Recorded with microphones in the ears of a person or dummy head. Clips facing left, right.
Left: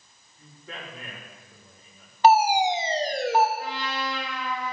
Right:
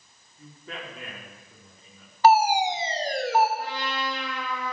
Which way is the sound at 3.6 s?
55° right (ahead or behind).